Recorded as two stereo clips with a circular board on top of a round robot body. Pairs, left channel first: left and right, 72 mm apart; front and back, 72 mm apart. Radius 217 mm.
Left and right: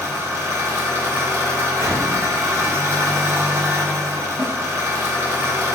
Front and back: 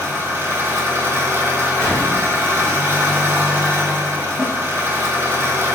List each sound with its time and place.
0.0 s an engine running: 135° right, 0.9 m
1.8 s an explosion: 75° left, 1.4 m
4.4 s a snare drum: 130° right, 1.8 m